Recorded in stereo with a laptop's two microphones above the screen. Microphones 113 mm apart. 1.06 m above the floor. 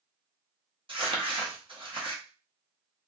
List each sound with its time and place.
0.9 s crumpling: 50° right (ahead or behind), 0.9 m